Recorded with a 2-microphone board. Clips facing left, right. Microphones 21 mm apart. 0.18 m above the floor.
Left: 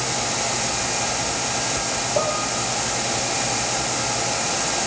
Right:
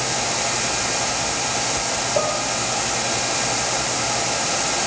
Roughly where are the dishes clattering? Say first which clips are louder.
Even; centre.